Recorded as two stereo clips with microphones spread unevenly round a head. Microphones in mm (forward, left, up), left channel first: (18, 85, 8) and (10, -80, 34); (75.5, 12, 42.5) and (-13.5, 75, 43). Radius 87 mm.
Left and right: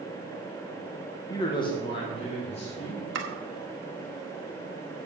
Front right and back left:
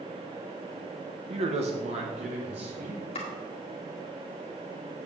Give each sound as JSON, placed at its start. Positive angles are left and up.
{"t": 1.3, "sound": "a man speaking", "azimuth_deg": 145, "distance_m": 1.1}
{"t": 3.1, "sound": "chopping", "azimuth_deg": -85, "distance_m": 1.6}